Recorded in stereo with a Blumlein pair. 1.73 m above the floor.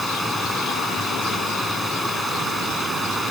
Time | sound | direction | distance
0.0 | running water | 5° right | ?